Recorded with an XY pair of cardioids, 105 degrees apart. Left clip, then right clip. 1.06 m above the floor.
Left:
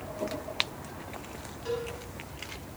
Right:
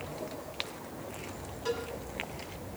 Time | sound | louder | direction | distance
1.6 | a cowbell | left 1 dB | 25° right | 6.5 m